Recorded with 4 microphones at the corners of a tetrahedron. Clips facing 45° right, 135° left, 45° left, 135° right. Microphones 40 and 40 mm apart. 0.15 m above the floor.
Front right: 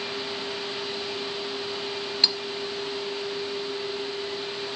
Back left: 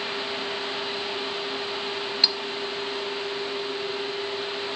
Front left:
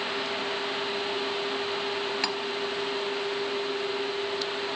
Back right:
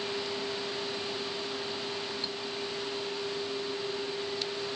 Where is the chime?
No chime in this recording.